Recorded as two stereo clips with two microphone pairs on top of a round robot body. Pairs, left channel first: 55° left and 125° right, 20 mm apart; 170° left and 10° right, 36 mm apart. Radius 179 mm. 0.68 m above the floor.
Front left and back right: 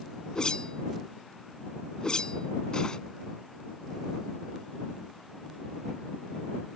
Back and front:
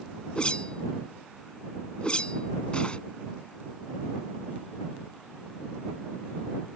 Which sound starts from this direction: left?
A whoosh, at 0.3 s.